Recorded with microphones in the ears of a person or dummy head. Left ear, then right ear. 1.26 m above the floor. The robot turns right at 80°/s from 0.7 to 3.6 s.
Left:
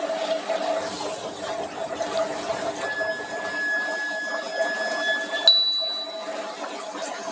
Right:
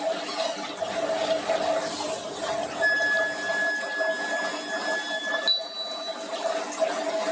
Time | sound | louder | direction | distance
2.8 | a flute | right 5 dB | 90° right | 2.5 m
5.5 | a bell | left 8 dB | 40° left (ahead or behind) | 0.6 m